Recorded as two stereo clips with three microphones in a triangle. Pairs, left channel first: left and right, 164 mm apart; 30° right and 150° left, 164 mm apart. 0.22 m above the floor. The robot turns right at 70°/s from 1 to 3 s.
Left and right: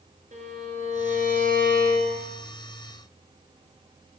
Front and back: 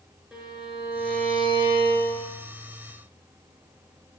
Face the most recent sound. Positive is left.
turn(degrees=15)